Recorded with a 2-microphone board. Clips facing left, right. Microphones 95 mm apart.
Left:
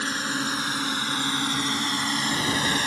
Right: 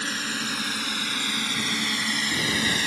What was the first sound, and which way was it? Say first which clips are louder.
A drone: left 3 dB; 25° left (ahead or behind).